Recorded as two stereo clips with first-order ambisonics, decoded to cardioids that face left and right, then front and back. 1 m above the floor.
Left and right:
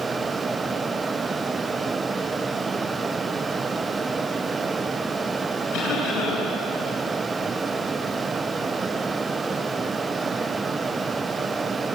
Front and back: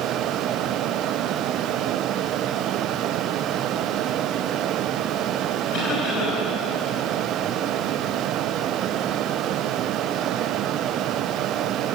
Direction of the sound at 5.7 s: 50° left.